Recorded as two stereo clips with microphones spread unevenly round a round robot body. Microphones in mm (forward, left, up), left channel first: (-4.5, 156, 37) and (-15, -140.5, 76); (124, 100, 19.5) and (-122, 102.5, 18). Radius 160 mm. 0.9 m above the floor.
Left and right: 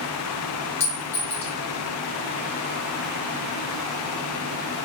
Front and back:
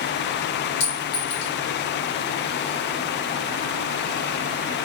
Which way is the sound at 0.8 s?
20° left.